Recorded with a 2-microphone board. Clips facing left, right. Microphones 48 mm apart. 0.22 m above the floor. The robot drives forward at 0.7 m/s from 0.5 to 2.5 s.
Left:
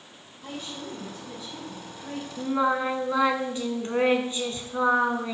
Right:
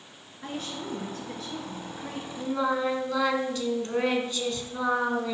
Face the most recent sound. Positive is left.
turn(degrees=25)  # may be behind; listen again after turning